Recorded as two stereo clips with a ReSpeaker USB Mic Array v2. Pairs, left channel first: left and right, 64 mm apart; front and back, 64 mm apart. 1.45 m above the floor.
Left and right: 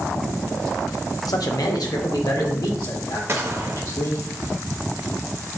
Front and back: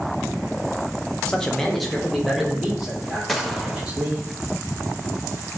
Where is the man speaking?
75° left, 0.8 m; by 4.2 s 100° left, 3 m.